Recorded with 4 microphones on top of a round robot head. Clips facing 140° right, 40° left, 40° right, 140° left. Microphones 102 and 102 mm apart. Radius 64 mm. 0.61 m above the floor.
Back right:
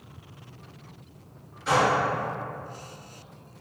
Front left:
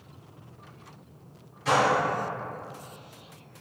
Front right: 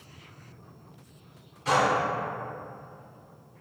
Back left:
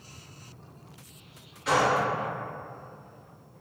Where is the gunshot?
15° left, 1.7 m.